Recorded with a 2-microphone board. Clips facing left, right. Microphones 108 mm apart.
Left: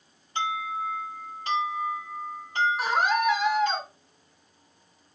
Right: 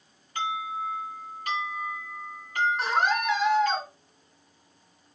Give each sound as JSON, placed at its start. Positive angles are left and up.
{"t": 0.3, "sound": "an alarm", "side_deg": 25, "distance_m": 7.0}
{"t": 2.8, "sound": "a scream", "side_deg": 5, "distance_m": 4.0}